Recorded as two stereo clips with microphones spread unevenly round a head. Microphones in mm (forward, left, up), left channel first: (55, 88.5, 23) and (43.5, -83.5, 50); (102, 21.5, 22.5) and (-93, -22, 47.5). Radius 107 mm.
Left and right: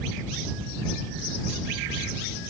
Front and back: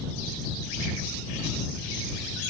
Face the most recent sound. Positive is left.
No sound to turn to.